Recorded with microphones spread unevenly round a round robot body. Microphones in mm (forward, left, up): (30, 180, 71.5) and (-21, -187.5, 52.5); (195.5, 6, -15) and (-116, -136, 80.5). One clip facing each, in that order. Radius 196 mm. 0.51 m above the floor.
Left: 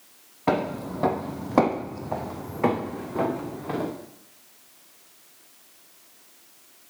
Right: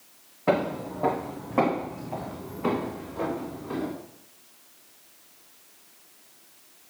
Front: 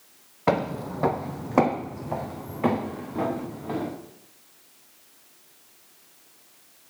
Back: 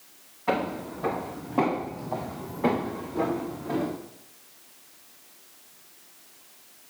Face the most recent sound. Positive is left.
turn(degrees=90)